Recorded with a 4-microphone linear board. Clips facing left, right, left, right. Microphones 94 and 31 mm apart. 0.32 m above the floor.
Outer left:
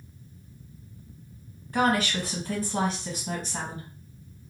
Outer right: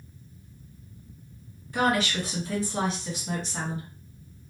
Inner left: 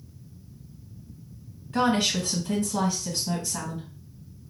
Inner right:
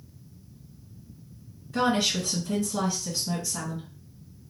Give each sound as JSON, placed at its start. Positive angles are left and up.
{"t": 1.7, "sound": "a woman speaking", "side_deg": 45, "distance_m": 1.9}